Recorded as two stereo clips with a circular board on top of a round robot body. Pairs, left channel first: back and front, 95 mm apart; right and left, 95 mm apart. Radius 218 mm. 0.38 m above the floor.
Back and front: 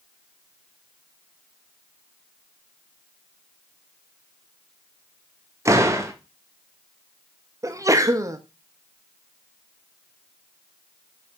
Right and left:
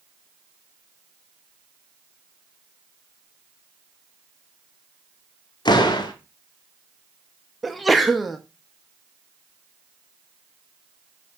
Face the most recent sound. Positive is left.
turn(degrees=0)